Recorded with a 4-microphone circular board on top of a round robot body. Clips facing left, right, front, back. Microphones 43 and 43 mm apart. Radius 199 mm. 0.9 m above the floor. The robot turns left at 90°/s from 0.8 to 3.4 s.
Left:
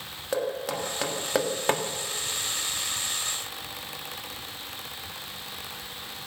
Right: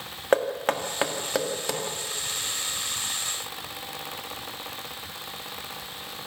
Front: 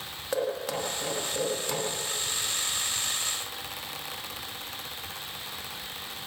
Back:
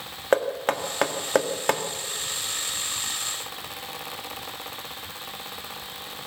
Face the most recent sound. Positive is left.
turn(degrees=-10)